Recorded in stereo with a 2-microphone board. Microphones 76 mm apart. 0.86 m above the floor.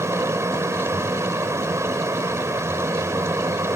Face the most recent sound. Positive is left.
turn(degrees=-40)  # may be behind; listen again after turning